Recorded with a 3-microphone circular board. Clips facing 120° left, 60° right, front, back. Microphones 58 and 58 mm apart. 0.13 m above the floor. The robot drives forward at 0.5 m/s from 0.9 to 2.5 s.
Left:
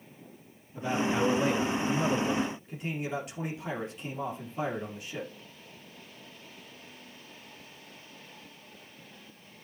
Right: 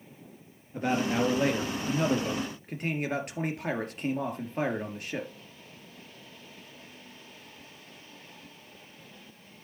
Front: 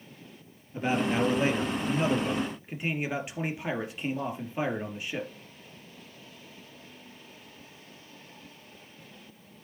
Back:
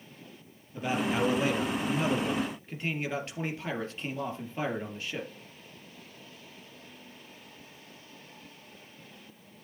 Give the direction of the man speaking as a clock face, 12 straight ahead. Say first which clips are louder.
Right 1 dB, front 2 dB; 2 o'clock.